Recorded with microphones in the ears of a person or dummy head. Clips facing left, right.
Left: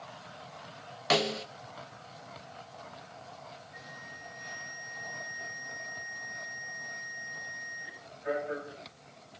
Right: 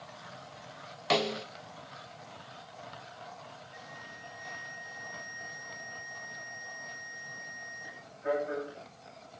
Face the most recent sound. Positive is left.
turn(degrees=-45)  # may be behind; listen again after turning